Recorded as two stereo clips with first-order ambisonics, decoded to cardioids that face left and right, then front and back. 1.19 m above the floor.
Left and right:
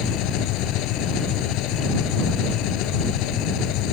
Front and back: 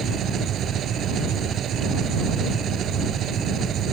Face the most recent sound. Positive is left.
turn(degrees=120)